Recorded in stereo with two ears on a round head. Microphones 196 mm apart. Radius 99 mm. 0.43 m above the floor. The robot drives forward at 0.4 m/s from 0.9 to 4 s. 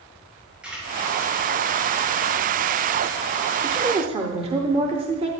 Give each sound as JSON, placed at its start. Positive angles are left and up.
{"t": 0.6, "sound": "a camera shutter", "side_deg": -5, "distance_m": 4.0}
{"t": 3.6, "sound": "a woman speaking", "side_deg": -25, "distance_m": 0.9}